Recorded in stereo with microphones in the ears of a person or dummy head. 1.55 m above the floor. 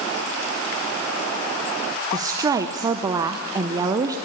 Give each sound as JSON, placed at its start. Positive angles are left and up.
{"t": 2.1, "sound": "a woman speaking", "side_deg": -20, "distance_m": 0.7}